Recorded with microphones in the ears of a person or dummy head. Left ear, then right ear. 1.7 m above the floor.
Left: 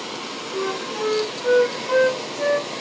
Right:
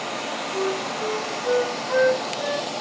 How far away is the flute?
About 0.5 m.